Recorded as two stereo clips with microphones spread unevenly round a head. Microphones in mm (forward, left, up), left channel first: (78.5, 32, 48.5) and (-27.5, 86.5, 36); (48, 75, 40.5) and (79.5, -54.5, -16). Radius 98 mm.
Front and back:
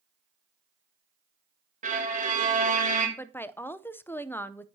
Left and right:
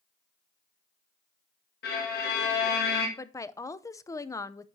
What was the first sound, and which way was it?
A violin, 130° left.